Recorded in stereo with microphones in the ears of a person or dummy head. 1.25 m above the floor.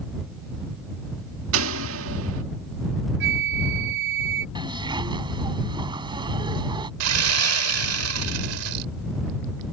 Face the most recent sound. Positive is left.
turn(degrees=-80)